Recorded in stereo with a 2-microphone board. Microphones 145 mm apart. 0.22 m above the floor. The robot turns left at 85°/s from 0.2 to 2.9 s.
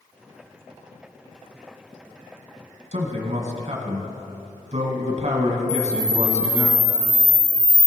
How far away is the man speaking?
About 1.7 m.